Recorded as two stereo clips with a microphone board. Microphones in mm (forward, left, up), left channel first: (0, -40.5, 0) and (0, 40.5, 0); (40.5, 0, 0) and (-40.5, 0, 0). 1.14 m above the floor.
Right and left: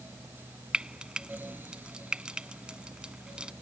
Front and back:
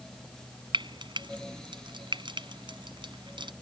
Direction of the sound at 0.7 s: 170° left.